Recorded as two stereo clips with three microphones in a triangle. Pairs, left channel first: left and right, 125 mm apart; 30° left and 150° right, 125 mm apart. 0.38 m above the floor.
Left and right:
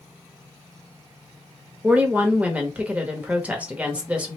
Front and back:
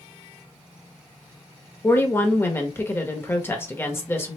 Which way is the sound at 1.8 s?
25° right.